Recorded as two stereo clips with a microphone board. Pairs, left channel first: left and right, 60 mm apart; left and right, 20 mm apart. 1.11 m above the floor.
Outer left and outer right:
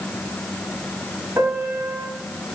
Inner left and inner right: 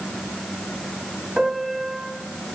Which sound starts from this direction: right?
A piano, at 1.4 s.